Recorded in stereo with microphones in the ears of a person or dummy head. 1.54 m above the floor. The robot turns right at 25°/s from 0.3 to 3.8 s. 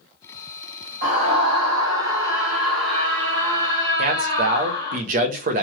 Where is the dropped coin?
No dropped coin in this recording.